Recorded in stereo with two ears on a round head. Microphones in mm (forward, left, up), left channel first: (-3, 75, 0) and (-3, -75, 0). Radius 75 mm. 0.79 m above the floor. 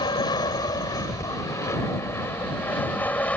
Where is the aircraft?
25° left (ahead or behind); by 3.4 s 10° left (ahead or behind).